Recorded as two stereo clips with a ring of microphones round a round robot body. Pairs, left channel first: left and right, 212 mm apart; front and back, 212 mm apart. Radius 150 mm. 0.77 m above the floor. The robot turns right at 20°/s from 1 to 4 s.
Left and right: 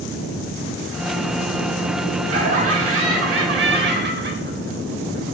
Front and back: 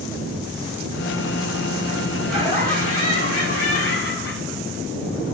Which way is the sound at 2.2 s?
90° right.